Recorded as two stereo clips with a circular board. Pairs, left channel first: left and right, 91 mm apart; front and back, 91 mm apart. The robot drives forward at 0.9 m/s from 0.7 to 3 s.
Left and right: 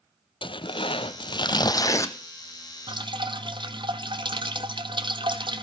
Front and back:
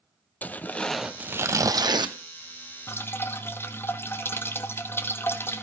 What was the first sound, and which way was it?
Tearing paper, 70° left.